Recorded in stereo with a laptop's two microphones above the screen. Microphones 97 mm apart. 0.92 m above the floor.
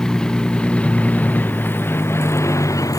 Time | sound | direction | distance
0.0 | a vehicle | 5° left (ahead or behind) | ?